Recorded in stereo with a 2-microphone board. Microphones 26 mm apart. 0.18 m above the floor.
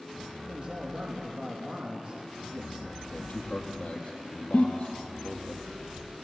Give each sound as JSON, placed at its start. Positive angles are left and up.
{"t": 0.5, "sound": "a man speaking", "side_deg": -15, "distance_m": 5.0}
{"t": 3.1, "sound": "a man speaking", "side_deg": 75, "distance_m": 4.0}
{"t": 4.5, "sound": "a giggle", "side_deg": 60, "distance_m": 2.0}